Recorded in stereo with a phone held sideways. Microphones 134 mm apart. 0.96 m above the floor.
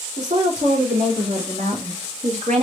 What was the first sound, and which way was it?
A woman speaking, 80° right.